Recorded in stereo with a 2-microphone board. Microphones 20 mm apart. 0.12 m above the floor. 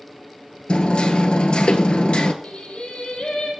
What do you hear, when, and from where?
0.7 s hammering: 55° left (ahead or behind), 1.0 m
2.4 s singing: 70° left (ahead or behind), 4 m